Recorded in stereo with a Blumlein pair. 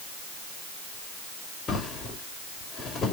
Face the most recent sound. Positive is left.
turn(degrees=20)